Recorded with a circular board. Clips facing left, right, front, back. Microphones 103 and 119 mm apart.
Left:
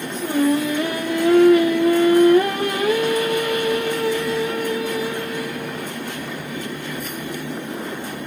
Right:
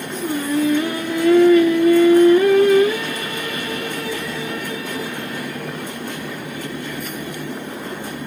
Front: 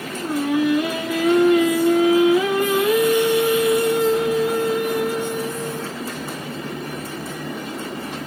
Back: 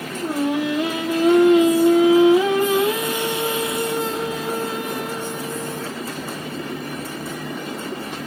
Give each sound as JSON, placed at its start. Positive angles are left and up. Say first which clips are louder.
{"t": 0.2, "sound": "singing", "louder": "left 1 dB, front 2 dB", "azimuth_deg": 115, "distance_m": 1.8}